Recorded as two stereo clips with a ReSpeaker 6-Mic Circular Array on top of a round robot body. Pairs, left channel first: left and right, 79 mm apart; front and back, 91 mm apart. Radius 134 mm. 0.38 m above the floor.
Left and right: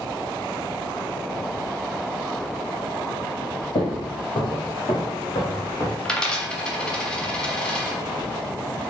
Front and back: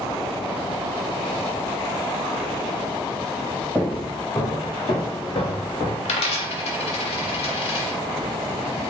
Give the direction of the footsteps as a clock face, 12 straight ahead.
9 o'clock.